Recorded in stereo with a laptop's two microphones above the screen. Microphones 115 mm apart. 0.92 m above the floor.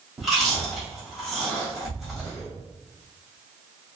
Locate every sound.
0.2 s chewing: centre (ahead or behind), 1.2 m